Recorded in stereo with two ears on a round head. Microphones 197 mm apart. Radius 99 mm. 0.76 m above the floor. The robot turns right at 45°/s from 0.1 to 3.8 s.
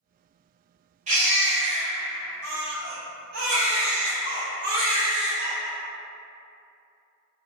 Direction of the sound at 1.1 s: 145° right.